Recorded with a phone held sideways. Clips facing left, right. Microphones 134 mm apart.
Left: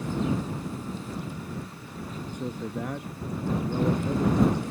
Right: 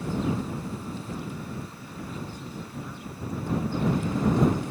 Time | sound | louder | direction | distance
2.3 | a man speaking | left 5 dB | 75° left (ahead or behind) | ?